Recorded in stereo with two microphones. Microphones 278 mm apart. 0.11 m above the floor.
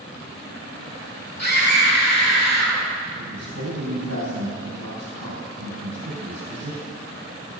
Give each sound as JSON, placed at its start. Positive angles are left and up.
{"t": 1.4, "sound": "a scream", "side_deg": 70, "distance_m": 3.0}
{"t": 3.2, "sound": "a man speaking", "side_deg": -70, "distance_m": 3.0}